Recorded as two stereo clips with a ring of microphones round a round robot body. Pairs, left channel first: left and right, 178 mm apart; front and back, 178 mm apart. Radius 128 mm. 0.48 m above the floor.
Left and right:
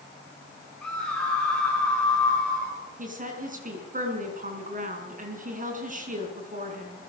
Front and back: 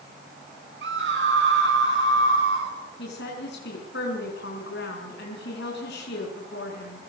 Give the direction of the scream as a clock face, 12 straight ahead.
6 o'clock.